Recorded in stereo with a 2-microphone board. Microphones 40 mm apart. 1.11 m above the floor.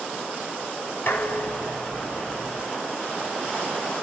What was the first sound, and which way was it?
Dishes clattering, 60° left (ahead or behind).